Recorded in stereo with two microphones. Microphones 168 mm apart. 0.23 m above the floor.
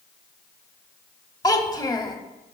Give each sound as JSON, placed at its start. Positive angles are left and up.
{"t": 1.4, "sound": "a child speaking", "side_deg": 20, "distance_m": 0.7}